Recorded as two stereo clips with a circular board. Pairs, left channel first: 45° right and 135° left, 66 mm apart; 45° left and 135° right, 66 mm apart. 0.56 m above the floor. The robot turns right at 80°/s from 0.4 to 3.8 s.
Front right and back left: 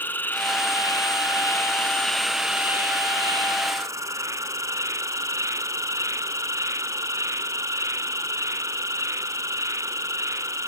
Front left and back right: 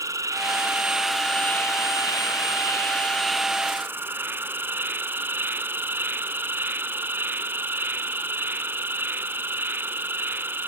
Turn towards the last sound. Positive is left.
turn(degrees=170)